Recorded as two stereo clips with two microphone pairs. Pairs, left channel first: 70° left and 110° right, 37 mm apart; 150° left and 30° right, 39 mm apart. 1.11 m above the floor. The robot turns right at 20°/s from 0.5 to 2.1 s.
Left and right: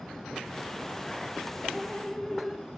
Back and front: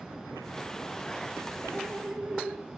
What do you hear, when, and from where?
1.7 s dripping: 5° right, 4.5 m; by 2.7 s straight ahead, 4.5 m